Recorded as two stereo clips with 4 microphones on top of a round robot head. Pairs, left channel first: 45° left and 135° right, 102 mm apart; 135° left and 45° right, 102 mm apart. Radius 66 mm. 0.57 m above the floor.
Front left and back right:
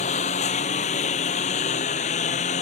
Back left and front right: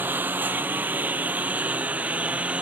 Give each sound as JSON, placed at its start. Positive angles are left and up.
{"t": 0.0, "sound": "a lawn mower", "azimuth_deg": 30}